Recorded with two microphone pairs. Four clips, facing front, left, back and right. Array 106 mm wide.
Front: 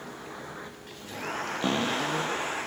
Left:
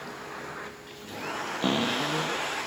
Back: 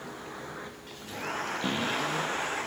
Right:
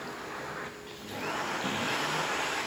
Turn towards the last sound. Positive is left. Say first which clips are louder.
# left 5 dB, front 4 dB
turn(degrees=55)